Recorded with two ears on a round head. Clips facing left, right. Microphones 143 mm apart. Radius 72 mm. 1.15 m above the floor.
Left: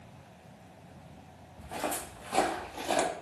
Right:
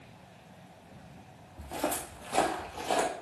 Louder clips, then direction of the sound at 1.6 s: Right 2 dB; 20° right (ahead or behind).